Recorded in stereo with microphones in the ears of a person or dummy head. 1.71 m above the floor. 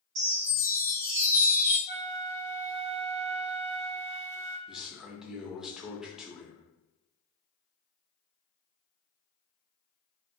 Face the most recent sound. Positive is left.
turn(degrees=-5)  # may be behind; listen again after turning